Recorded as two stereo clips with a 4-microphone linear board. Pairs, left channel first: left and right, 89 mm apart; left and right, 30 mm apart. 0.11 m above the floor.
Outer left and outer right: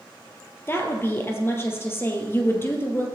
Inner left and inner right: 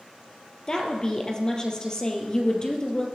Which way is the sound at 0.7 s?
25° left (ahead or behind).